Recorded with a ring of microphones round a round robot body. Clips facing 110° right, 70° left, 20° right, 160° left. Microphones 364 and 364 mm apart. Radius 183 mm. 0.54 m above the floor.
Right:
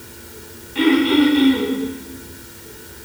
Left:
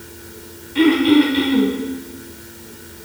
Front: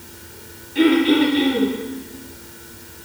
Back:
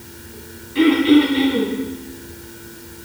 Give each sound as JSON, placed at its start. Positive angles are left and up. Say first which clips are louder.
{"t": 0.8, "sound": "throat clearing", "louder": "left 2 dB, back 2 dB", "azimuth_deg": 75, "distance_m": 2.5}